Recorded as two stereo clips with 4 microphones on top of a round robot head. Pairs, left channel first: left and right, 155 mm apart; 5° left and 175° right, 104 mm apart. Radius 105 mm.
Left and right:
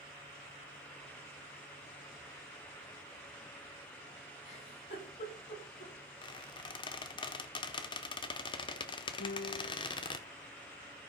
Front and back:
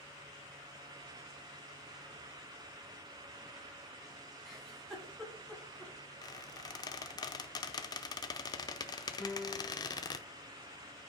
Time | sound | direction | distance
4.5 | a giggle | 90° left | 5.5 m
6.2 | a squeak | 40° left | 0.7 m
9.2 | a piano | 85° left | 6 m